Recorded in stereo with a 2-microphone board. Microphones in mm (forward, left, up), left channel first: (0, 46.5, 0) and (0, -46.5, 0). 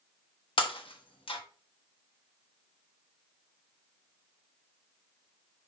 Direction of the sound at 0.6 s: 70° left (ahead or behind).